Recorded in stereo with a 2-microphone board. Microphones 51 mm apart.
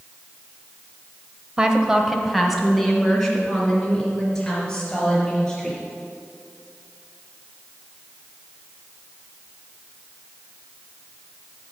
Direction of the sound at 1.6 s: 20° right (ahead or behind).